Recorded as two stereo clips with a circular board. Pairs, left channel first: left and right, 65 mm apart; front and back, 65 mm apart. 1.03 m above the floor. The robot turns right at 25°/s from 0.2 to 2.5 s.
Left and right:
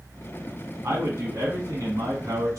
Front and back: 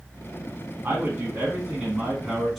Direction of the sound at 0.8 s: 120° right.